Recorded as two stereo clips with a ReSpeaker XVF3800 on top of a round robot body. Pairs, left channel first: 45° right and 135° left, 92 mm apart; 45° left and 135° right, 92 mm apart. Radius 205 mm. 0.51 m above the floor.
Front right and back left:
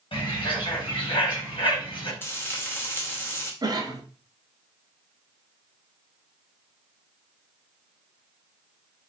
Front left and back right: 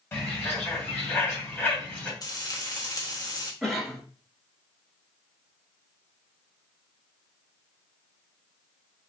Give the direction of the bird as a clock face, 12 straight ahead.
1 o'clock.